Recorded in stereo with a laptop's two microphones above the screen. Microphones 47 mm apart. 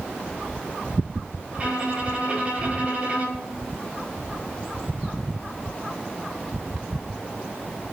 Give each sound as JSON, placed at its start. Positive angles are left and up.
{"t": 1.5, "sound": "a violin", "side_deg": -30, "distance_m": 0.9}